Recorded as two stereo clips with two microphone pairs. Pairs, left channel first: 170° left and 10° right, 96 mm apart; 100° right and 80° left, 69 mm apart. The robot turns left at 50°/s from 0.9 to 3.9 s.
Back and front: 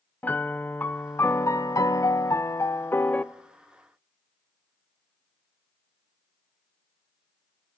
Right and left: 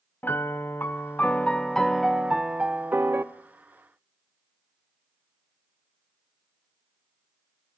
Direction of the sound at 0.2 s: 135° right.